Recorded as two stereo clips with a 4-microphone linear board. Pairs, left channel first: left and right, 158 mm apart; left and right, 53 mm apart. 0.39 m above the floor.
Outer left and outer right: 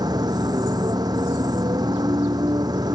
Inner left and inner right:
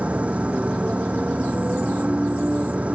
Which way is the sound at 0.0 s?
25° right (ahead or behind).